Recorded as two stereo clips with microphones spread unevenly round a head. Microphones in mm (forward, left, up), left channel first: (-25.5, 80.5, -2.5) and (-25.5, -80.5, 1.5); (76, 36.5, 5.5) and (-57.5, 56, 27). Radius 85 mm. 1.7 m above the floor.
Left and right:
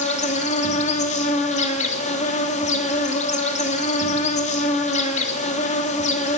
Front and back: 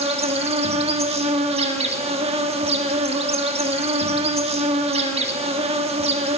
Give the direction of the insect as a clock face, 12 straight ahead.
7 o'clock.